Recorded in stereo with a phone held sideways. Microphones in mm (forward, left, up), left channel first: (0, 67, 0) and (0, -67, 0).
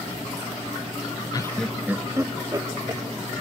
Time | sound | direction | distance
1.3 | laughter | 30° left (ahead or behind) | 0.6 m